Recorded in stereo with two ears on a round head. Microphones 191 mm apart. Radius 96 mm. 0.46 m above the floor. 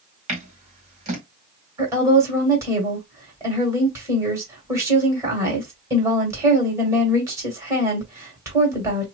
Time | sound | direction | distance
0.3 | scissors | 30° right (ahead or behind) | 1.8 m
1.8 | a woman speaking | 15° right (ahead or behind) | 1.9 m